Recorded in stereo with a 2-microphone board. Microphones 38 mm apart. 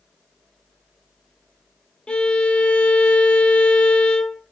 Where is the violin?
25° left (ahead or behind), 1.4 m.